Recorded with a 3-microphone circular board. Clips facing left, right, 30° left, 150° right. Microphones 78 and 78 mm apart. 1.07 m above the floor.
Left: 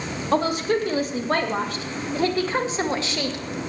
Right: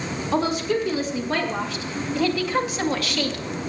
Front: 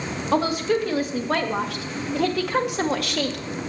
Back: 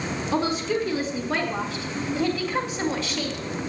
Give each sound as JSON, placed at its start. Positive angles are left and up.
{"t": 0.3, "sound": "a woman speaking", "azimuth_deg": 60, "distance_m": 2.5}